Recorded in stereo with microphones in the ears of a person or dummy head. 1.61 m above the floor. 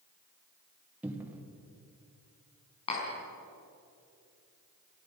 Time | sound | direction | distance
1.0 | a cupboard door | 10° right (ahead or behind) | 1.9 m
2.9 | tapping | 35° left (ahead or behind) | 5 m